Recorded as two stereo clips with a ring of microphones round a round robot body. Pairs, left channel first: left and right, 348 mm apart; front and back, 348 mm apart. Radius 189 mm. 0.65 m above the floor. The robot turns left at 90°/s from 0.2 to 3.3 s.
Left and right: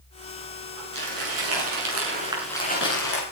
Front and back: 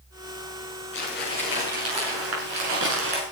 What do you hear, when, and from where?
0.9 s crumpling: 45° right, 6.5 m; by 3.2 s 110° left, 6.5 m